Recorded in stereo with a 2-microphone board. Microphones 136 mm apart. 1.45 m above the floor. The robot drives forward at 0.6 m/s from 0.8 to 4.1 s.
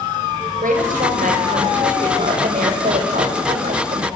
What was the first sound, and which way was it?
A woman speaking, 80° right.